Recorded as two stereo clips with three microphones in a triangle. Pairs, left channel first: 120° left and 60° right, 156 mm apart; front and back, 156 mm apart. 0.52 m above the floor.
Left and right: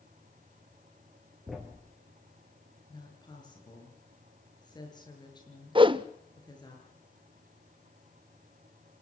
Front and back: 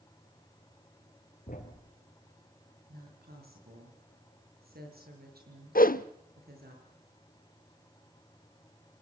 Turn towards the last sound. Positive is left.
turn(degrees=-5)